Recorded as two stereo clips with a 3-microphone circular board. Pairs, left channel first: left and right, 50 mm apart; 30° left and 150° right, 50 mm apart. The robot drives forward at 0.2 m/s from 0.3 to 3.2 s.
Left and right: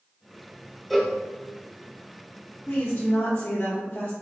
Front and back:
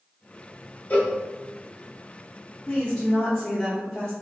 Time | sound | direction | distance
0.9 | a cowbell | straight ahead | 0.8 m
2.7 | a woman speaking | 95° left | 1.0 m